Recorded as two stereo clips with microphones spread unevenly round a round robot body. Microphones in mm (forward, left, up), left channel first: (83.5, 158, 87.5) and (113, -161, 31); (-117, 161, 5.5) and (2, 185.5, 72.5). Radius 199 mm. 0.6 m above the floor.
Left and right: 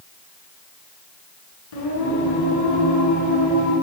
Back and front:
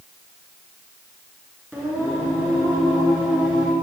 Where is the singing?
95° left, 8.5 m.